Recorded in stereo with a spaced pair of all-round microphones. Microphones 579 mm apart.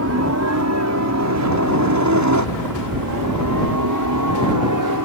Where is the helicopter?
25° right (ahead or behind); by 5.1 s 30° right (ahead or behind).